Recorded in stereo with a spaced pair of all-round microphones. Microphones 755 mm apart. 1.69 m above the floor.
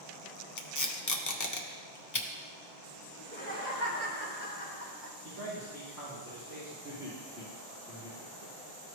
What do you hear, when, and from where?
0.6 s tape being pulled: 25° left (ahead or behind), 0.7 m
3.2 s laughter: 15° left (ahead or behind), 3 m
5.2 s a man speaking: 20° right (ahead or behind), 3.5 m
6.8 s laughter: 5° right (ahead or behind), 2.0 m